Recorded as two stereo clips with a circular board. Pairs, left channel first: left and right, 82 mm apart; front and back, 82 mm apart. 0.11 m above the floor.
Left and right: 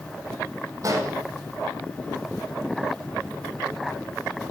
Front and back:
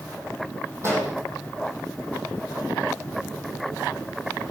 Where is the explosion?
130° right, 4.5 m.